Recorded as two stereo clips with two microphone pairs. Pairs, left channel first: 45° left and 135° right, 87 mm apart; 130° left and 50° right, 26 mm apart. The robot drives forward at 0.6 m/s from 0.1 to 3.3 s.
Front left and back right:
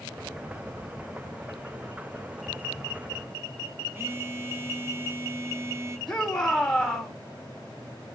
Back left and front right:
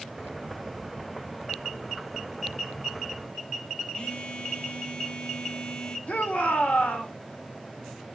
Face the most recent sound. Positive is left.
turn(degrees=130)